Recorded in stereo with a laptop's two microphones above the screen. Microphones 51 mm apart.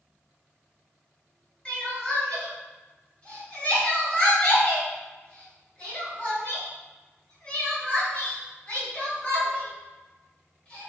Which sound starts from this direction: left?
Crying, at 1.6 s.